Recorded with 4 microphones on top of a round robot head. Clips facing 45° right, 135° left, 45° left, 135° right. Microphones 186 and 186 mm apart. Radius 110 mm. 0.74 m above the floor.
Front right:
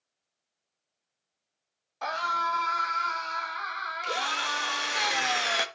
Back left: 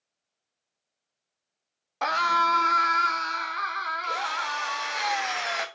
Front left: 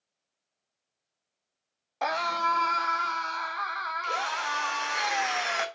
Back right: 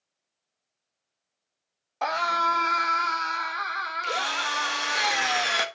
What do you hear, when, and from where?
2.0 s a scream: 130° left, 1.2 m; by 5.0 s 175° left, 3 m
4.0 s a drill: 95° right, 1.0 m